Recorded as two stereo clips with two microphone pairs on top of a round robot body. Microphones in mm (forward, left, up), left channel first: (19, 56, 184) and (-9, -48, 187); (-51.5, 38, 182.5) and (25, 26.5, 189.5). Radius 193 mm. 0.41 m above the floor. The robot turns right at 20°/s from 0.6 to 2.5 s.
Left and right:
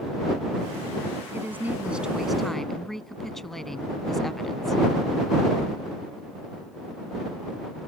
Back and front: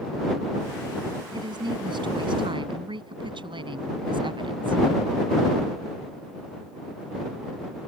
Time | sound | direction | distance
1.3 | a woman speaking | 35° right | ?